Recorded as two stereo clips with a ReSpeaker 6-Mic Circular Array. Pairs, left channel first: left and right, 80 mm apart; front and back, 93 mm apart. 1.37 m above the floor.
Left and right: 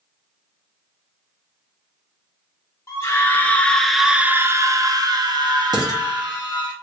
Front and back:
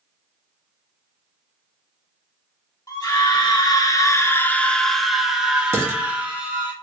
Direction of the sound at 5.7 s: 120° right.